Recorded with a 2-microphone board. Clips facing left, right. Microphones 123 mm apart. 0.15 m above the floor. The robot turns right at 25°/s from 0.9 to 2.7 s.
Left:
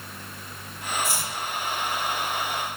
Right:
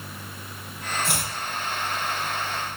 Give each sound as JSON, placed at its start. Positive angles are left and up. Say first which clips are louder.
{"t": 1.0, "sound": "chopping", "louder": "right 1 dB", "side_deg": -65, "distance_m": 4.0}